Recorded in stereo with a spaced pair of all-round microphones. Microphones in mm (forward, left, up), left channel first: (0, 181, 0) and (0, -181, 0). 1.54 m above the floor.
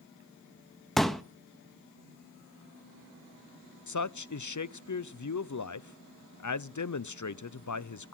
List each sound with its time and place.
1.0 s a pop: centre (ahead or behind), 0.9 m
3.9 s a man speaking: 55° left (ahead or behind), 0.5 m